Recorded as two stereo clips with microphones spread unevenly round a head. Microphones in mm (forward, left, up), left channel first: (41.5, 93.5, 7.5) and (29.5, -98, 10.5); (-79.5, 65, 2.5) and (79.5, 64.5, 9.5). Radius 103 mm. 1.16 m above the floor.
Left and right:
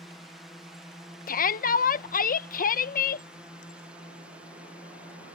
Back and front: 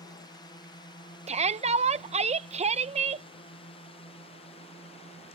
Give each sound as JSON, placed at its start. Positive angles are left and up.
{"t": 0.0, "sound": "a drone", "azimuth_deg": 175}
{"t": 1.3, "sound": "a shout", "azimuth_deg": 45}